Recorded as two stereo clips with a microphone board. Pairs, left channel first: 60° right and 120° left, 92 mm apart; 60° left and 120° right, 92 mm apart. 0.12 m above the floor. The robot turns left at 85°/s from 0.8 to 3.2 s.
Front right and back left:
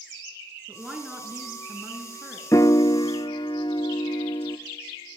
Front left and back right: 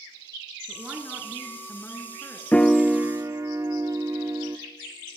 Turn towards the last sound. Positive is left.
turn(degrees=-70)